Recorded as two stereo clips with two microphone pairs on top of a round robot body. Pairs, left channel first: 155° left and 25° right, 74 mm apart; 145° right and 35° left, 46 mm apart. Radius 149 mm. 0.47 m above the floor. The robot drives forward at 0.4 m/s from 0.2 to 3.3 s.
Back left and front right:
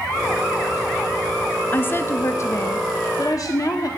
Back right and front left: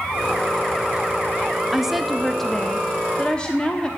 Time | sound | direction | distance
1.7 | a woman speaking | 125° left | 0.8 m